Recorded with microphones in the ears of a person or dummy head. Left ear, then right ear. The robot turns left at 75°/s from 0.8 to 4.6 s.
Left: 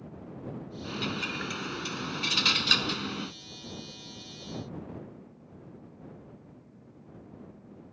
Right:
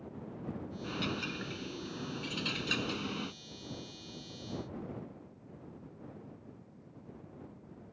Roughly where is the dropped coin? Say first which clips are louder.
Left 4 dB; behind.